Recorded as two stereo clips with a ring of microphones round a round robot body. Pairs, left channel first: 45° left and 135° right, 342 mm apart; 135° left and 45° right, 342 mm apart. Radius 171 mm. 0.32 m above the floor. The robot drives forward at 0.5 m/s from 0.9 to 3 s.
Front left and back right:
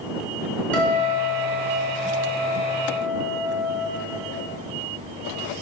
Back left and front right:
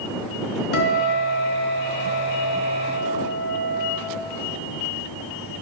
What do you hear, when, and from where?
0.7 s a guitar: 130° left, 1.6 m; by 3.9 s 150° left, 2.5 m